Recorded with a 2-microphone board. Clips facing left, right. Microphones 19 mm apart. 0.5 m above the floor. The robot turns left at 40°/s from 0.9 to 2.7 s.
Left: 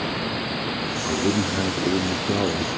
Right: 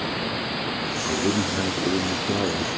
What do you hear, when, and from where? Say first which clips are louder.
1.1 s a man speaking: left 1 dB; centre (ahead or behind), 1.0 m; by 2.7 s 25° left (ahead or behind), 1.0 m